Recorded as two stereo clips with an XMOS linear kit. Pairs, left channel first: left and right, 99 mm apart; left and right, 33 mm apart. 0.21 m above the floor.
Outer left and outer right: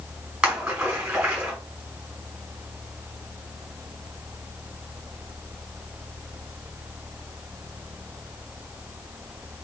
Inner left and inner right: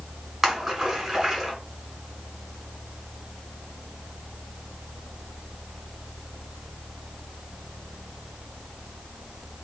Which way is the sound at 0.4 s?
10° right (ahead or behind).